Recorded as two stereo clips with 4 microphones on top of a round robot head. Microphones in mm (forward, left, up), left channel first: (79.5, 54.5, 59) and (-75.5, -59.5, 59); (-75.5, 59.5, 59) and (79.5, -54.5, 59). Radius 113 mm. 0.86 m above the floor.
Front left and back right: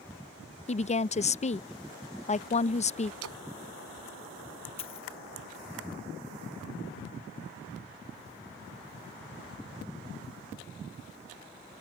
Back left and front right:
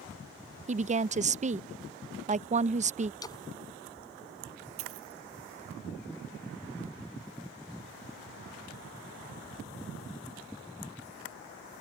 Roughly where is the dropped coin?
Ahead right.